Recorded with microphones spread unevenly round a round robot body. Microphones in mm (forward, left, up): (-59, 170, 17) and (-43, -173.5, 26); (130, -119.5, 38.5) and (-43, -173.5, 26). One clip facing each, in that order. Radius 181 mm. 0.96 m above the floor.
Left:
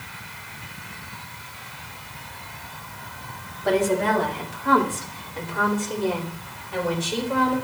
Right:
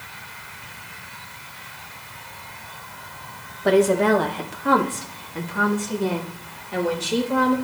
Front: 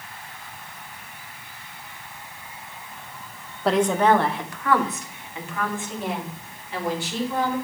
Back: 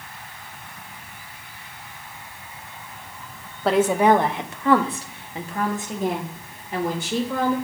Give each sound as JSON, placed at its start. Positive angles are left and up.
{"t": 3.6, "sound": "a woman speaking", "azimuth_deg": -75, "distance_m": 1.2}